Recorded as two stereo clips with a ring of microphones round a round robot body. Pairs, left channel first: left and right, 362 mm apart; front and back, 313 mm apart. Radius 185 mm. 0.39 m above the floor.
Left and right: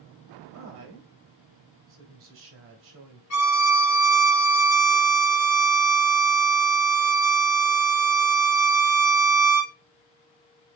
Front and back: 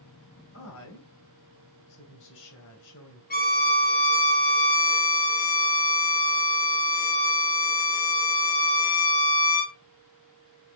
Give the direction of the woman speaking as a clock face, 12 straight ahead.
1 o'clock.